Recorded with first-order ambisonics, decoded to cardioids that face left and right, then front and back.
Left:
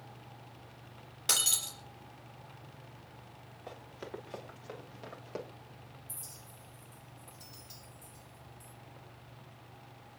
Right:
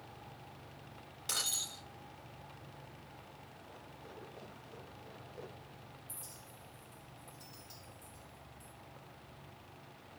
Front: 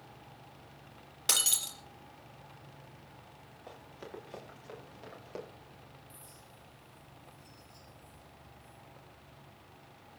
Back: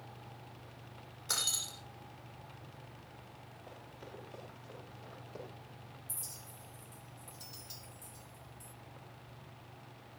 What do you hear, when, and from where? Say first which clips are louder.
1.3 s breaking glass: left 6 dB, front 5 dB; 30° left, 4 m
3.7 s running footsteps: left 10 dB, front 4 dB; 70° left, 7.5 m; by 5.5 s 60° left, 7 m
6.1 s a clink: left 4 dB, back 5 dB; 170° left, 2.0 m